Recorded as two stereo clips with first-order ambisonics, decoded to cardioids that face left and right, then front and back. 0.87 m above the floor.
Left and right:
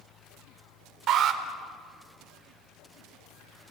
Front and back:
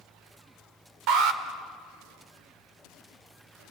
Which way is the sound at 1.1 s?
145° right.